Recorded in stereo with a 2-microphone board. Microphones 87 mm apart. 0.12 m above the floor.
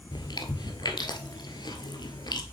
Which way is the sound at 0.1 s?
55° left (ahead or behind).